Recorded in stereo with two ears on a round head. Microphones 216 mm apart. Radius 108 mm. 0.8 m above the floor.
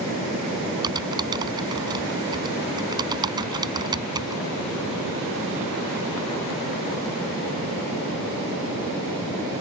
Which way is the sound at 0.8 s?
20° right (ahead or behind).